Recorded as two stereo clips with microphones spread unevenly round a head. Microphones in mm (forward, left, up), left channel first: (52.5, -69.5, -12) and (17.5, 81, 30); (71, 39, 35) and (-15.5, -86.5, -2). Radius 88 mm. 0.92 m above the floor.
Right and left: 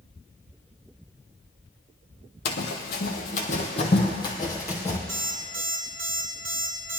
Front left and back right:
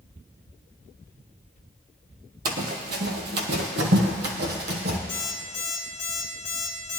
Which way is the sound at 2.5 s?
100° right.